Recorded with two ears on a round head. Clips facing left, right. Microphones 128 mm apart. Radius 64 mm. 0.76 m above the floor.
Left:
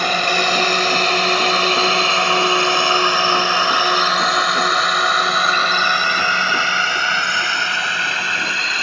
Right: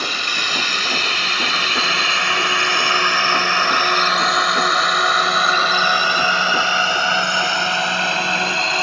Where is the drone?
45° left (ahead or behind); by 8.8 s 25° right (ahead or behind).